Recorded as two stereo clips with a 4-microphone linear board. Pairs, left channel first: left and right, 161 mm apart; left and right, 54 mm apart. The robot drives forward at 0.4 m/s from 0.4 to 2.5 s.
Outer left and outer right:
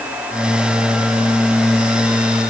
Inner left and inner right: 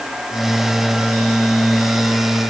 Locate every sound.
Only background noise.